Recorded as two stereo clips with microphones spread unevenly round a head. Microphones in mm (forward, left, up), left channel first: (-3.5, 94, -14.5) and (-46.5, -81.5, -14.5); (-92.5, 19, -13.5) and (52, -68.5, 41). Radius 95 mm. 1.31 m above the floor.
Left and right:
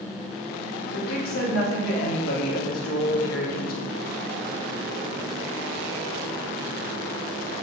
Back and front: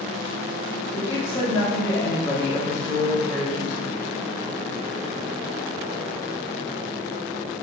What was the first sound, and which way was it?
A woman speaking, 75° left.